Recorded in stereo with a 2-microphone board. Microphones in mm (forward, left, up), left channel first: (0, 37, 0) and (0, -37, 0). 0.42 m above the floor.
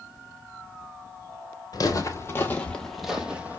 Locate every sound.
1.7 s footsteps: 55° left (ahead or behind), 0.9 m; by 3.6 s 20° right (ahead or behind), 0.9 m